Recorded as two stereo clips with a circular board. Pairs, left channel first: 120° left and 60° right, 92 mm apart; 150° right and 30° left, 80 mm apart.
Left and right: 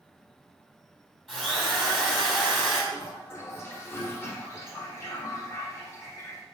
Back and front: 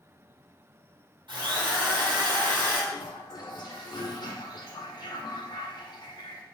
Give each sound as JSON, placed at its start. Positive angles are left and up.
{"t": 1.3, "sound": "a drill", "azimuth_deg": 35, "distance_m": 2.5}
{"t": 2.9, "sound": "a toilet flushing", "azimuth_deg": 180, "distance_m": 1.8}